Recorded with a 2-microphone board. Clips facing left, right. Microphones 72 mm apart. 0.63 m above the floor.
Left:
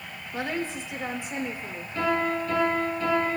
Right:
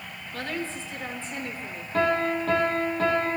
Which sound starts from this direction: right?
A piano, at 1.9 s.